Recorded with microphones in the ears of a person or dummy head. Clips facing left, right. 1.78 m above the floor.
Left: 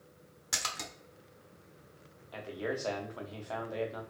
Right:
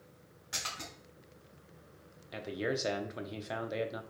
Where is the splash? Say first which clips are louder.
Left 3 dB; 80° left, 1.0 m.